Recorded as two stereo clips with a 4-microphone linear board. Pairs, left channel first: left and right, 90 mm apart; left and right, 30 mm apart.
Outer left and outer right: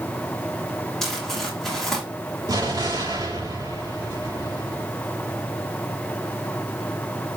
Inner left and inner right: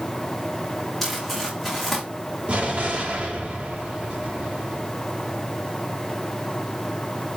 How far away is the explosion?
About 3 m.